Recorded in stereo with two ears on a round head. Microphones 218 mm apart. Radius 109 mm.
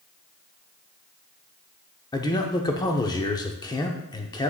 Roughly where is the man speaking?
Centre.